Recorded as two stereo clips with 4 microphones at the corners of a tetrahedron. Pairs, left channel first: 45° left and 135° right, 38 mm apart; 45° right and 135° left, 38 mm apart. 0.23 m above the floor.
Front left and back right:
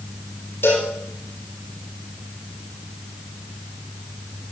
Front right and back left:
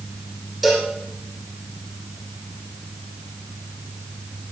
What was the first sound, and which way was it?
A cowbell, 45° left.